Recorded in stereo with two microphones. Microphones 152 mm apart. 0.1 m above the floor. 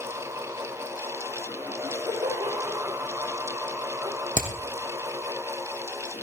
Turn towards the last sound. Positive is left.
turn(degrees=65)  # may be behind; listen again after turning